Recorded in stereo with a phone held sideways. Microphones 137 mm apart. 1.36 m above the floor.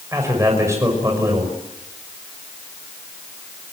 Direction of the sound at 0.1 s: 20° right (ahead or behind).